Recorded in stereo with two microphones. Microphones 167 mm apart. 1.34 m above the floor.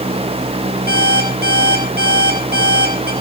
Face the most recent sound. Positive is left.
turn(degrees=-75)  # may be behind; listen again after turning